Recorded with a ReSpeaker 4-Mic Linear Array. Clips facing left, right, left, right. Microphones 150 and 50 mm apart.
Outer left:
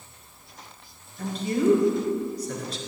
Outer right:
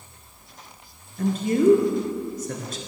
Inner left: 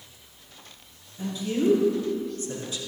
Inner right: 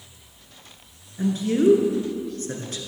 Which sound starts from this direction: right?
A man speaking, at 1.2 s.